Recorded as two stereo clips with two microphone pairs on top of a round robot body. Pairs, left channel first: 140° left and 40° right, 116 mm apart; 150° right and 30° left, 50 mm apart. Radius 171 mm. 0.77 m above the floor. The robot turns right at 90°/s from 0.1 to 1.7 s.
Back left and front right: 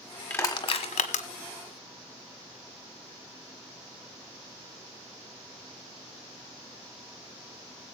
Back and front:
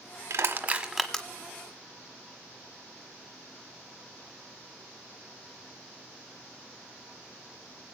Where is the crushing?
60° left, 1.3 m; by 1.2 s 145° left, 1.3 m.